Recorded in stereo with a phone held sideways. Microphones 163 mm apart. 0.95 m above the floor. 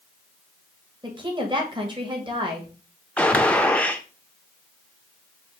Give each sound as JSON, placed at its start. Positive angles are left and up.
{"t": 1.0, "sound": "a woman speaking", "side_deg": -30, "distance_m": 1.2}
{"t": 3.2, "sound": "a gunshot", "side_deg": 10, "distance_m": 0.5}